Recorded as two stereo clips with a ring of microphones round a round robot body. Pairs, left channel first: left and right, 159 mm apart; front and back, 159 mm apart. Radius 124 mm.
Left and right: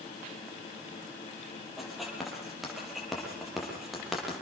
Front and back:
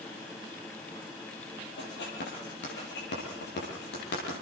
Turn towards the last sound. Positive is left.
turn(degrees=0)